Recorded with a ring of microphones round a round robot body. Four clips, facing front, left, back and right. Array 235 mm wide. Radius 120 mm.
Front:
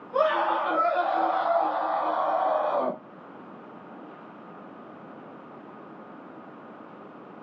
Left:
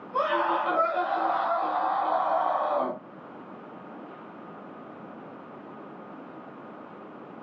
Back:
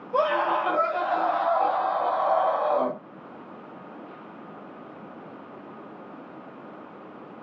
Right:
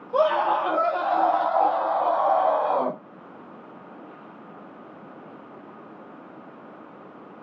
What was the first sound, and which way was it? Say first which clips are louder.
A scream: right 5 dB, even; 120° right.